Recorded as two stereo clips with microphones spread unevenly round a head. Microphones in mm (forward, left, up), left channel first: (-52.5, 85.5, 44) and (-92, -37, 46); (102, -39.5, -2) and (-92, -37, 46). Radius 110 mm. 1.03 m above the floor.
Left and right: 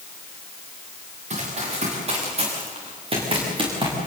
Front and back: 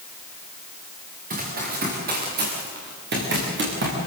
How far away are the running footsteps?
About 8 m.